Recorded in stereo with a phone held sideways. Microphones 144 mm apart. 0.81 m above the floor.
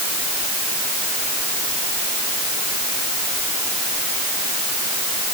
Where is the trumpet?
I don't hear a trumpet.